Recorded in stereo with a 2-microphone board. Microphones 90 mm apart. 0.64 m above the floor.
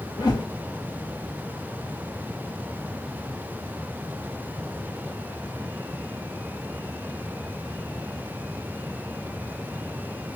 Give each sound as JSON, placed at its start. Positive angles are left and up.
{"t": 0.2, "sound": "a whoosh", "side_deg": 45, "distance_m": 1.8}